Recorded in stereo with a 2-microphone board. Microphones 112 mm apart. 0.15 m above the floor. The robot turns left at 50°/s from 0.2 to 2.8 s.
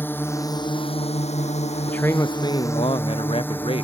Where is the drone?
15° left (ahead or behind).